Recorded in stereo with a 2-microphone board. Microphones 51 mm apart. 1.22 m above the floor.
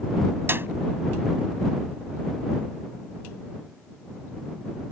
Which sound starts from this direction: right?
A clap, at 0.5 s.